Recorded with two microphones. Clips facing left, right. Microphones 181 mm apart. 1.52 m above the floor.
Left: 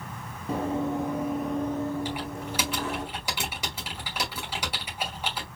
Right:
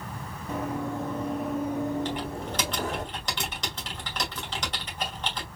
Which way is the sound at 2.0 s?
10° left (ahead or behind).